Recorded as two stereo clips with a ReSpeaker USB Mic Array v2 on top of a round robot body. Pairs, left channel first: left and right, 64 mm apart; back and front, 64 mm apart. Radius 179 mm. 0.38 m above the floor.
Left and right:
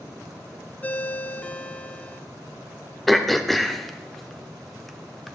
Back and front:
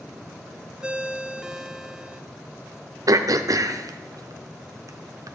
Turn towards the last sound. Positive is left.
turn(degrees=0)